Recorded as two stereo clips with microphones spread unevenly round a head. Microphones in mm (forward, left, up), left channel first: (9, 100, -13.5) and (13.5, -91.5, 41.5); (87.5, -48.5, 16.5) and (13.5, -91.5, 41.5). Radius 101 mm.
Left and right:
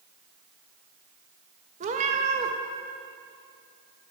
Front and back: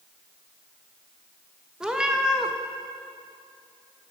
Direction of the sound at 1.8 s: 90° right.